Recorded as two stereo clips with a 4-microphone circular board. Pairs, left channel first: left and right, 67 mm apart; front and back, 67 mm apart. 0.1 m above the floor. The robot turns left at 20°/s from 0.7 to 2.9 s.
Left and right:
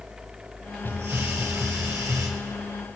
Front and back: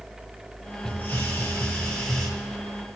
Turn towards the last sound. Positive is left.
turn(degrees=-90)